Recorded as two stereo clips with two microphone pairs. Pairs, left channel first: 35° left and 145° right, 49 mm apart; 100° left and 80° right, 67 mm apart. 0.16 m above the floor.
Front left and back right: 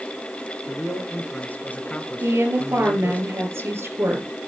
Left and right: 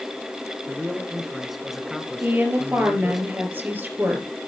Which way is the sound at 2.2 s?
140° right.